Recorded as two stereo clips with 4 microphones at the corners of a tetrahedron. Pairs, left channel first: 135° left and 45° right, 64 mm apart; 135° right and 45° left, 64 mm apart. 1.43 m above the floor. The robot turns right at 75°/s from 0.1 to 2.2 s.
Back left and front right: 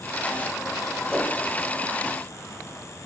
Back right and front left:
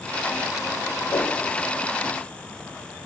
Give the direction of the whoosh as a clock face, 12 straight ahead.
4 o'clock.